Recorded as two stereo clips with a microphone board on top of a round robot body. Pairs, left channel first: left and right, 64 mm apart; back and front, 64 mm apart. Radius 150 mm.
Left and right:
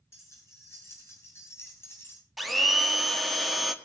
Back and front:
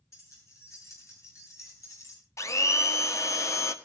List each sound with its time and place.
0.1 s keys jangling: 135° left, 7 m; by 2.2 s 145° left, 5.5 m
2.4 s a blender: straight behind, 1.7 m